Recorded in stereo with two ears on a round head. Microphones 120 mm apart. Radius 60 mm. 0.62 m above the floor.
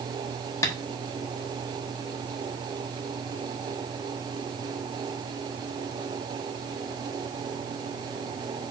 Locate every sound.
0.6 s tapping: 25° left (ahead or behind), 1.1 m